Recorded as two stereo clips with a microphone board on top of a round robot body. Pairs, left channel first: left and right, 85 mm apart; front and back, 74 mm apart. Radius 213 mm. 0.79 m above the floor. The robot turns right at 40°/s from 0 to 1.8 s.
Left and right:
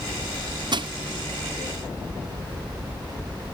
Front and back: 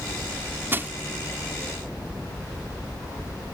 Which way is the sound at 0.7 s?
120° right.